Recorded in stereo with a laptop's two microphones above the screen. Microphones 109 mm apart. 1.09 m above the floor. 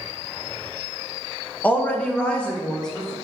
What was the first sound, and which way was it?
A woman speaking, 15° left (ahead or behind).